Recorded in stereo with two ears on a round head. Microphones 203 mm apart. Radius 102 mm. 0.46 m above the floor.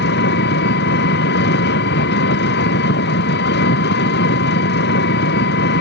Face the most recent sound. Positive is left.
turn(degrees=50)  # may be behind; listen again after turning